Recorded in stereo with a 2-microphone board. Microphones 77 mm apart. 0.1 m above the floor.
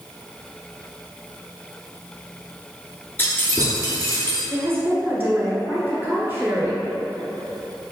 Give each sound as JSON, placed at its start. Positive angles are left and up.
{"t": 3.2, "sound": "keys jangling", "side_deg": 25, "distance_m": 1.0}
{"t": 4.5, "sound": "a woman speaking", "side_deg": -25, "distance_m": 1.2}